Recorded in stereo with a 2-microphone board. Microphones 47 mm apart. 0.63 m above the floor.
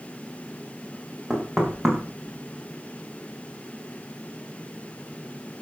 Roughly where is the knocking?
Centre.